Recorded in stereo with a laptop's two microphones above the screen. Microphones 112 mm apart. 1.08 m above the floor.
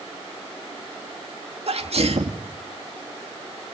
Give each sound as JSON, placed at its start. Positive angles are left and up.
{"t": 1.7, "sound": "a sneeze", "side_deg": -65, "distance_m": 2.0}